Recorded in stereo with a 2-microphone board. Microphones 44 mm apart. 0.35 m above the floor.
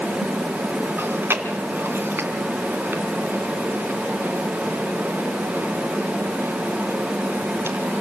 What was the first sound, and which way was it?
Chewing, 65° right (ahead or behind).